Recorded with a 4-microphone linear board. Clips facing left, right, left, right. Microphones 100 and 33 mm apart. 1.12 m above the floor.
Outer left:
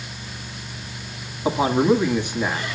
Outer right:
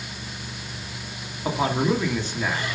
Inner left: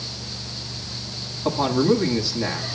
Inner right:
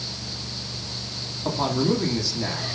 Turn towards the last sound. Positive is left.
turn(degrees=15)  # may be behind; listen again after turning